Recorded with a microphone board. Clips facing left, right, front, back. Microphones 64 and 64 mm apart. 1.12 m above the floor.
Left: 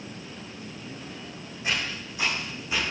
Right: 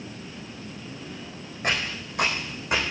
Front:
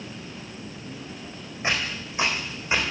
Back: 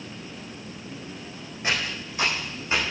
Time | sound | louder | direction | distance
1.6 | footsteps | right 2 dB, front 1 dB | 65° right | 3.5 m